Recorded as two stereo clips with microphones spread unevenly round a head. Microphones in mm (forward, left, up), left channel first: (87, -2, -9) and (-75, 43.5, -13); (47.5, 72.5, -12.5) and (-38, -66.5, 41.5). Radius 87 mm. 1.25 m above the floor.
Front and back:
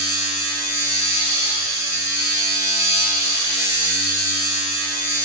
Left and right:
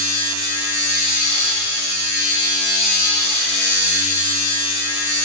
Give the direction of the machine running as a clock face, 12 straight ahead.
9 o'clock.